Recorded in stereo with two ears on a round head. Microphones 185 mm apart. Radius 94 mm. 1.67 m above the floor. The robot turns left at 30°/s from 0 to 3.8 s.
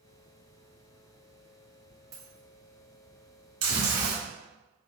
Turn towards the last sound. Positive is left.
turn(degrees=-70)  # may be behind; listen again after turning